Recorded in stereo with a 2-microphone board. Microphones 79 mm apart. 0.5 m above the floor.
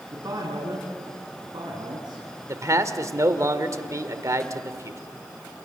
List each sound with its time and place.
0.1 s a man speaking: 50° right (ahead or behind), 4.5 m; by 2.2 s 70° right (ahead or behind), 4.5 m
2.5 s a man speaking: 40° right (ahead or behind), 1.7 m